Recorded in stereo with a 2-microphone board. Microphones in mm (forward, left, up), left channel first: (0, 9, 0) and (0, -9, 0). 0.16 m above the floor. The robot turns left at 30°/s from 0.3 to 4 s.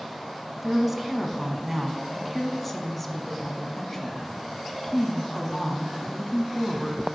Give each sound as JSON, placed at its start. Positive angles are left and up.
{"t": 0.6, "sound": "a woman speaking", "side_deg": -10, "distance_m": 1.3}